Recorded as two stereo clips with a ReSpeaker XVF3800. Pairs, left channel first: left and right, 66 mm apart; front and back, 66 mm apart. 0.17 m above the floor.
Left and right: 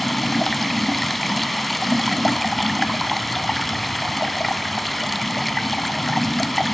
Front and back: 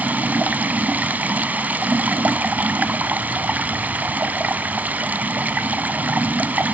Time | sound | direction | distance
0.0 | running water | straight behind | 1.0 m